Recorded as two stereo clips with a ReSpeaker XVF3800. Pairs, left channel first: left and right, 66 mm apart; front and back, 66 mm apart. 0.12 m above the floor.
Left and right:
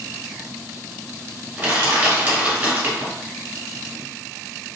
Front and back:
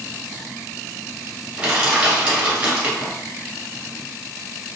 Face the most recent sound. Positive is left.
turn(degrees=-125)